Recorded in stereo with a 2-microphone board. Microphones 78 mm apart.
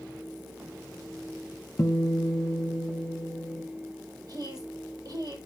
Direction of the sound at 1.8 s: 25° left (ahead or behind).